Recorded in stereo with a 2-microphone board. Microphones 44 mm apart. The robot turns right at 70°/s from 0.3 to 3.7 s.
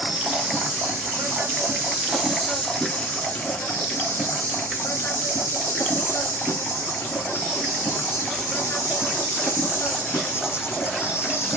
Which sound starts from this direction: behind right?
An insect, at 0.0 s.